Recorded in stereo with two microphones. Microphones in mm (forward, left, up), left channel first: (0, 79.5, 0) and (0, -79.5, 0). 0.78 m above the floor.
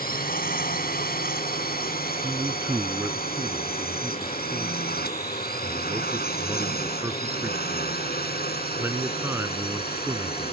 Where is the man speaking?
15° right (ahead or behind).